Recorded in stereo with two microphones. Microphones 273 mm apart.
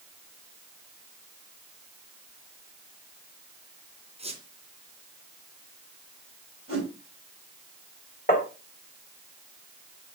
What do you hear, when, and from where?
4.2 s a squeak: 25° right (ahead or behind), 3 m
6.7 s a whoosh: 50° left (ahead or behind), 5 m
8.3 s tapping: 30° left (ahead or behind), 2 m